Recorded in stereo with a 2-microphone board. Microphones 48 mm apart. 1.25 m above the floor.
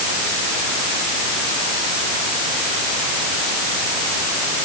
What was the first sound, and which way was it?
Only background noise.